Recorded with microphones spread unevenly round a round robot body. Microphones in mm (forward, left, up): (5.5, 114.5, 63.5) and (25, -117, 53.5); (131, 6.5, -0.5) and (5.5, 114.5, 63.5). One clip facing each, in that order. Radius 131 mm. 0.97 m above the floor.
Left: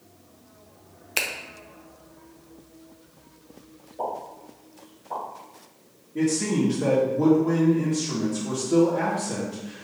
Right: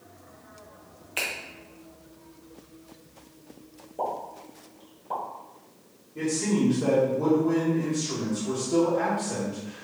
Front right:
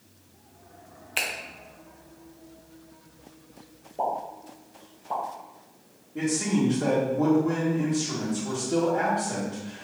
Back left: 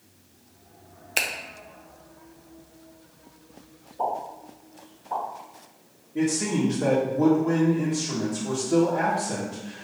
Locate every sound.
1.2 s a finger snap: 85° left, 0.7 m
4.0 s a pop: 45° right, 1.7 m
6.2 s a man speaking: 60° left, 1.5 m